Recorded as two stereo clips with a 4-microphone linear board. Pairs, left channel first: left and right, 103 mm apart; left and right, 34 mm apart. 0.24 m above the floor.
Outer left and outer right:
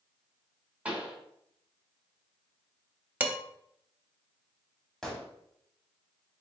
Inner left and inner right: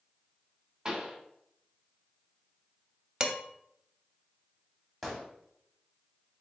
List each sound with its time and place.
0.8 s a pop: 15° right (ahead or behind), 1.0 m
3.2 s dishes clattering: 20° right (ahead or behind), 0.6 m
5.0 s a gunshot: 5° left (ahead or behind), 1.3 m